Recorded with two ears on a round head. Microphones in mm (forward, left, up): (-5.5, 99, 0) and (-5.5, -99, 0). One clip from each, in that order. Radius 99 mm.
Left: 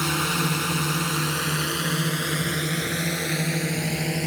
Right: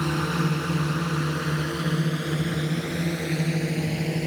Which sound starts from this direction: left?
A drone, at 0.0 s.